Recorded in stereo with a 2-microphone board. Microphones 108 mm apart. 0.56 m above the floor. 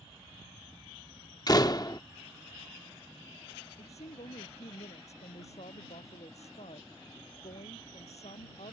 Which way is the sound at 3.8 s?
80° left.